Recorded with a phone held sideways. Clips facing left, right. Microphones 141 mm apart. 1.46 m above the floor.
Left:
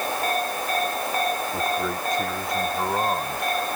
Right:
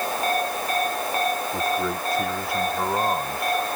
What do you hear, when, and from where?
1.5 s a man speaking: 5° right (ahead or behind); by 3.6 s centre (ahead or behind)